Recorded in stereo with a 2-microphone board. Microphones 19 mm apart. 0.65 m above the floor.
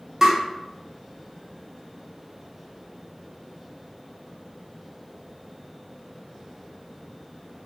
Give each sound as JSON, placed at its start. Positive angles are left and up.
{"t": 0.2, "sound": "tapping", "side_deg": -20, "distance_m": 0.9}